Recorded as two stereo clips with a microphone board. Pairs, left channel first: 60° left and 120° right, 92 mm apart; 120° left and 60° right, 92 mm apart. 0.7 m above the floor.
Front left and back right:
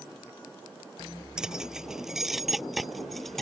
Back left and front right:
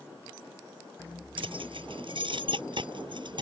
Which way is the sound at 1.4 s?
35° right.